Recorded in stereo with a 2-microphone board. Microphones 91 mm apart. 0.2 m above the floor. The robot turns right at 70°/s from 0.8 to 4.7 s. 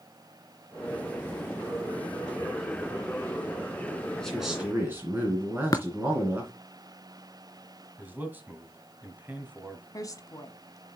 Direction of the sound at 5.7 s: 45° left (ahead or behind).